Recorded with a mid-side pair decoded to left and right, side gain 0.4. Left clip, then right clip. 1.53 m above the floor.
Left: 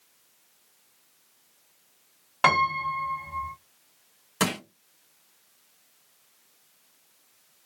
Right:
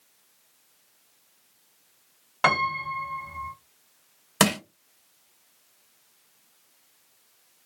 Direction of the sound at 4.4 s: 65° right.